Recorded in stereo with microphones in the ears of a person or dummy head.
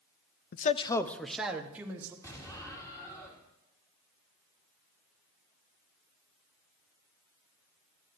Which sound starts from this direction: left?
A man speaking, at 0.5 s.